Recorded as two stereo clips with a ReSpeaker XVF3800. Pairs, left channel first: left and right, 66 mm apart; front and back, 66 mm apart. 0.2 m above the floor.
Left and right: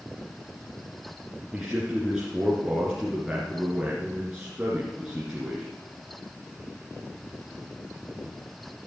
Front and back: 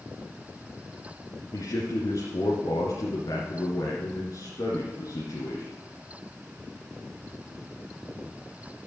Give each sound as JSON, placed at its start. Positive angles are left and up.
{"t": 1.5, "sound": "a man speaking", "azimuth_deg": -10, "distance_m": 2.0}